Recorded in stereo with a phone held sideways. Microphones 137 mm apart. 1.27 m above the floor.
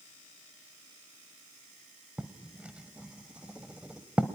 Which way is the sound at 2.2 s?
10° right (ahead or behind).